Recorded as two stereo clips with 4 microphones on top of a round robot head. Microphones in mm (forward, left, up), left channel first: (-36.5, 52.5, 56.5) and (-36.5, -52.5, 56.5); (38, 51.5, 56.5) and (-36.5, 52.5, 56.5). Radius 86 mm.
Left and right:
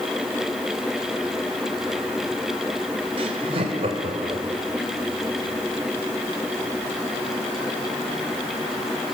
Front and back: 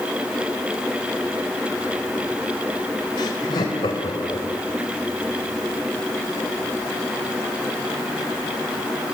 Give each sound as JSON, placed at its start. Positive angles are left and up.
{"t": 3.2, "sound": "laughter", "azimuth_deg": -45, "distance_m": 3.5}